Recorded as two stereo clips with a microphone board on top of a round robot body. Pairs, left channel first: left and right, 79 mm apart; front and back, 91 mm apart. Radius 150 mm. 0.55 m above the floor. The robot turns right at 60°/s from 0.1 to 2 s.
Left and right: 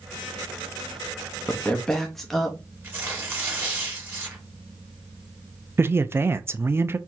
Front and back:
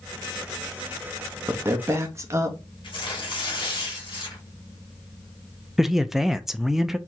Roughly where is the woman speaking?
Behind left.